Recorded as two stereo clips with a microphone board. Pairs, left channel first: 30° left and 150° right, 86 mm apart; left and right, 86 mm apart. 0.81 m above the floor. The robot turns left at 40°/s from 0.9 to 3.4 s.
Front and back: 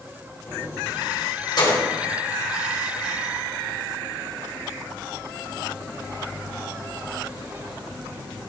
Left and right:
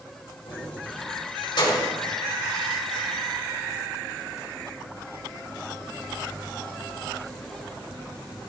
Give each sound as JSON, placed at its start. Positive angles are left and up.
{"t": 0.5, "sound": "keys jangling", "azimuth_deg": 90, "distance_m": 2.0}